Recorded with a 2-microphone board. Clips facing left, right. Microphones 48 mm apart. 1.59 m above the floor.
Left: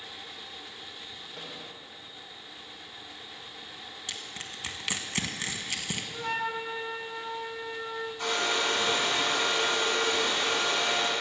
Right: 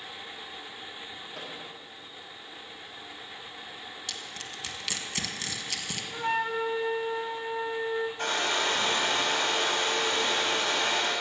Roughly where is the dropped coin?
No dropped coin in this recording.